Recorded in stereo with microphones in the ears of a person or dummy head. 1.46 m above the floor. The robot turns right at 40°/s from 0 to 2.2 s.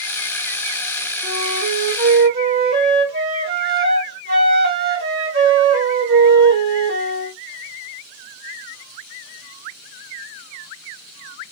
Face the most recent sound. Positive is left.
turn(degrees=-130)